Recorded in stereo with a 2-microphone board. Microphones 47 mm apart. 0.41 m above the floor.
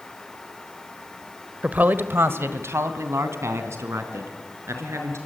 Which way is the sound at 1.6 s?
30° right (ahead or behind).